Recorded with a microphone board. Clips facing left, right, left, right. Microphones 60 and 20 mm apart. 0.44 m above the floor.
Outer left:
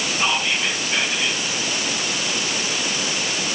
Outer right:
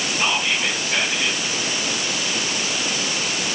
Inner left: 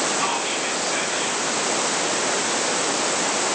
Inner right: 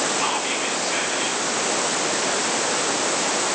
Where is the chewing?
I don't hear chewing.